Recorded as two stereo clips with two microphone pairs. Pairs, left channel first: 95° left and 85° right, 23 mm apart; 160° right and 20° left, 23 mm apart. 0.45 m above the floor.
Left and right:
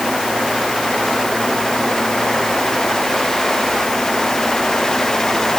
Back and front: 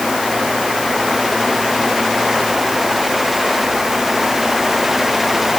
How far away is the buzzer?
No buzzer in this recording.